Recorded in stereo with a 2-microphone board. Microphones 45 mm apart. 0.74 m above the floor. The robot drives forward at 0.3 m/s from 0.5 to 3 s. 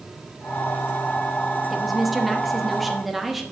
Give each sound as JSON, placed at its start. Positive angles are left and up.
{"t": 1.7, "sound": "a woman speaking", "side_deg": 0, "distance_m": 0.9}